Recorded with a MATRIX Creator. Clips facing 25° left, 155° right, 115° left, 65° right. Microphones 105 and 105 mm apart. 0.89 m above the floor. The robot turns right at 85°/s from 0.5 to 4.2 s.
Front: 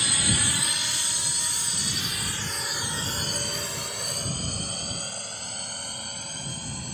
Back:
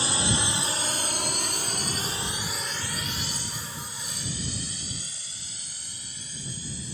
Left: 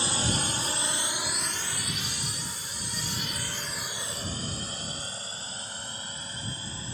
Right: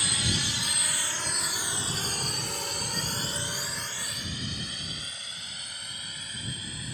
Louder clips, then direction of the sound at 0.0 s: Back 2 dB, left 3 dB; 160° left.